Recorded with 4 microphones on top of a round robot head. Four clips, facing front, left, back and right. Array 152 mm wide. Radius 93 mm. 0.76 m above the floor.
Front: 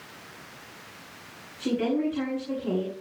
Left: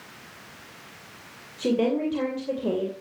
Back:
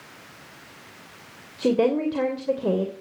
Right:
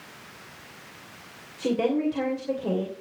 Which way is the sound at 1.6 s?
170° left.